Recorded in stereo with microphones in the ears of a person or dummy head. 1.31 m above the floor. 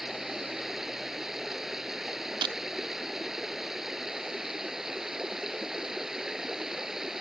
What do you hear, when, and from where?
0.0 s running water: centre (ahead or behind)
2.4 s breaking glass: 30° right (ahead or behind)